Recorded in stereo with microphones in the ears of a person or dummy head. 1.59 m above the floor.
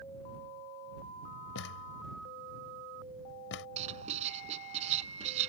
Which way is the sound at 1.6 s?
70° left (ahead or behind).